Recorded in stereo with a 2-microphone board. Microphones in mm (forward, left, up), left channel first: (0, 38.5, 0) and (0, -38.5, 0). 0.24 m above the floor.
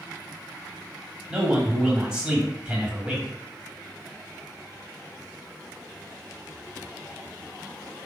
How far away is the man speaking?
About 1.1 m.